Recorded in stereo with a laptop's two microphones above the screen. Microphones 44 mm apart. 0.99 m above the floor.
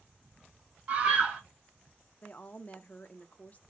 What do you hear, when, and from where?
0.9 s a scream: 30° right (ahead or behind), 1.4 m
2.2 s a woman speaking: 30° left (ahead or behind), 0.7 m